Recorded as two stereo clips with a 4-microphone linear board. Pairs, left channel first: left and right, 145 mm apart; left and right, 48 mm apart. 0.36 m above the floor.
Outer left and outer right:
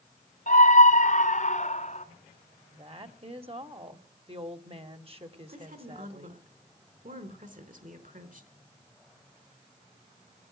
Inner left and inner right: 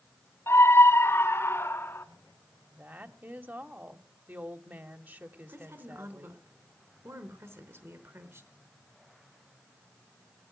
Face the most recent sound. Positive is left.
turn(degrees=-70)  # may be behind; listen again after turning